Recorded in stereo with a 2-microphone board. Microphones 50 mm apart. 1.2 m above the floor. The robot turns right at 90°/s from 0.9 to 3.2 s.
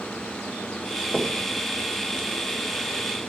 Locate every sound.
1.1 s knocking: 10° left (ahead or behind), 1.3 m; by 1.4 s 15° right (ahead or behind), 1.3 m